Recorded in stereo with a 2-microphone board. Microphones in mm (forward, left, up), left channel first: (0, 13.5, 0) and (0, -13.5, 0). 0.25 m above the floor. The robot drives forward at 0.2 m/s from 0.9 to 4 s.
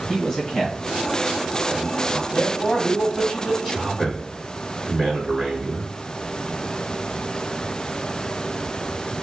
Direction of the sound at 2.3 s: 30° left (ahead or behind).